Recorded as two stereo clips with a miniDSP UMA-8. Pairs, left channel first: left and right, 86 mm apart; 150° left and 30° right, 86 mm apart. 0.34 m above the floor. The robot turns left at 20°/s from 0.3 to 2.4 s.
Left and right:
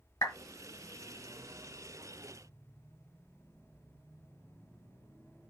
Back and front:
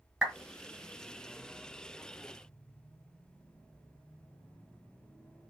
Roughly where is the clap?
Ahead left.